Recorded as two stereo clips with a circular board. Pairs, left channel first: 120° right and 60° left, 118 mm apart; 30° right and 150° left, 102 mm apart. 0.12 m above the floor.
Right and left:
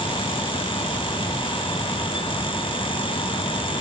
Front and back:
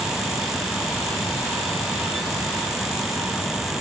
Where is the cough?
I don't hear a cough.